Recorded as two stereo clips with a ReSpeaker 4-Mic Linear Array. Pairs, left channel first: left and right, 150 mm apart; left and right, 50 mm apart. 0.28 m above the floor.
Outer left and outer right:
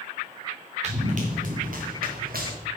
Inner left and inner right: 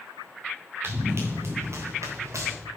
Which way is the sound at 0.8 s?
50° right (ahead or behind).